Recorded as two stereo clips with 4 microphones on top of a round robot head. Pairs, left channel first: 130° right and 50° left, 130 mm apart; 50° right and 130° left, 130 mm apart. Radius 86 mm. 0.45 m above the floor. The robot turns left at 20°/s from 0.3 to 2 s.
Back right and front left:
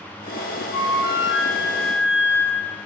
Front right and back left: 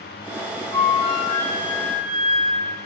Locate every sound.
0.7 s a flute: 55° right, 2.5 m; by 2.8 s 80° right, 2.5 m